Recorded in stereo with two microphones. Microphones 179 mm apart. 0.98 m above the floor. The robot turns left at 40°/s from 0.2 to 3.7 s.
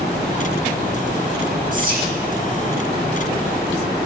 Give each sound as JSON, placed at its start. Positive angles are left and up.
{"t": 1.7, "sound": "whispering", "side_deg": -45, "distance_m": 2.0}